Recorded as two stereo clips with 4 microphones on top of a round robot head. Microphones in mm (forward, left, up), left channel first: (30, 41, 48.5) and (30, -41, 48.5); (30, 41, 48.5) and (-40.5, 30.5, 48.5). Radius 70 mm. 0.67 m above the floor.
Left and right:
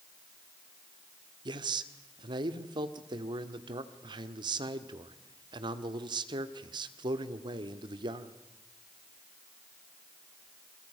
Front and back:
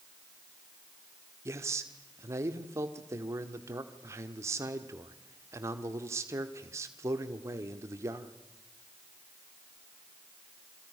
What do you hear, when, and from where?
1.4 s a man speaking: 120° right, 1.7 m